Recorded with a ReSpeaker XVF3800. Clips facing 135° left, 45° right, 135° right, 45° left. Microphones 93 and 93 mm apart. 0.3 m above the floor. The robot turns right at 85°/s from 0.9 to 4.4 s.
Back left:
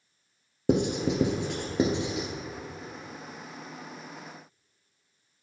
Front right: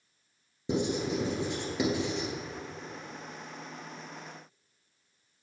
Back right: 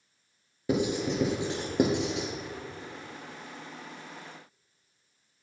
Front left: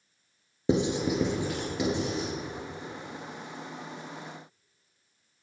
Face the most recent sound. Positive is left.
turn(degrees=45)